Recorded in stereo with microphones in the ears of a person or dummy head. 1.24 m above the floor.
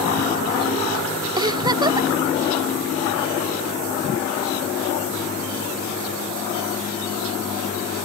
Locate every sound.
1.4 s a giggle: 25° right (ahead or behind)